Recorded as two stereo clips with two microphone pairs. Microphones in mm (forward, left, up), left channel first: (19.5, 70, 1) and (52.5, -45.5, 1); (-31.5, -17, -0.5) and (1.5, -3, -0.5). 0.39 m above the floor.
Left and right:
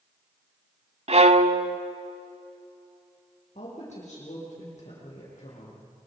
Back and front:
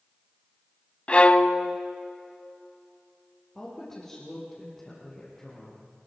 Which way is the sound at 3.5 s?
130° left.